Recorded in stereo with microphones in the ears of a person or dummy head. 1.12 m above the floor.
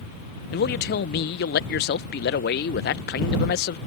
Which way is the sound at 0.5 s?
45° left (ahead or behind).